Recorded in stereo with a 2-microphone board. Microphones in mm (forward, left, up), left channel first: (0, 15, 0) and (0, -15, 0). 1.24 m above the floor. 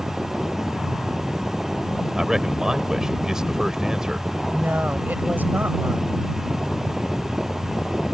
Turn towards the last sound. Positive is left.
turn(degrees=-85)